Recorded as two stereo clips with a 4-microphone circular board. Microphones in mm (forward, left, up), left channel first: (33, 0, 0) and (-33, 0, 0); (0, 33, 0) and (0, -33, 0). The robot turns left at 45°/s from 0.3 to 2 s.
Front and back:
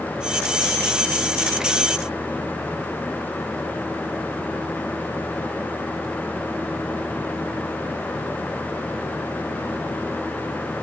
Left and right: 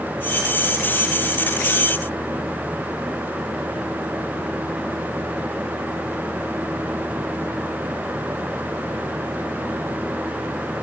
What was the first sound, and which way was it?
Only background noise.